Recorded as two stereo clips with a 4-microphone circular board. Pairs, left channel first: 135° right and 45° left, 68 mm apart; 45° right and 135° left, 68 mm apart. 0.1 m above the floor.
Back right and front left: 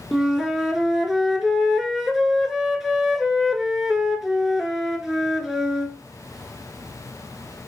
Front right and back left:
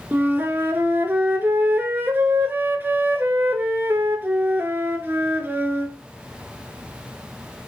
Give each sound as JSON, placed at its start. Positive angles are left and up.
{"t": 0.1, "sound": "a flute", "azimuth_deg": 130, "distance_m": 0.7}